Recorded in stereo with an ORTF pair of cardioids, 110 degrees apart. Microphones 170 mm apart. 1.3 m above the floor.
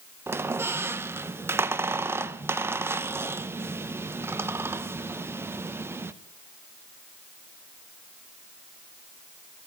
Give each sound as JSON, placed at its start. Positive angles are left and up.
{"t": 0.3, "sound": "a squeak", "azimuth_deg": -15, "distance_m": 0.7}